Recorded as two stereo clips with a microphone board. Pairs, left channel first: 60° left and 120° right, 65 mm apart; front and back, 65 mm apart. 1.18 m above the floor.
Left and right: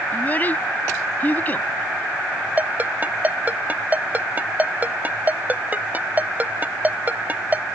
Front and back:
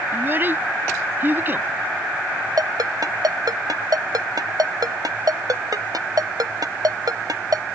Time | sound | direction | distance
0.1 | a child speaking | 125° left | ?
2.6 | a ringtone | straight behind | ?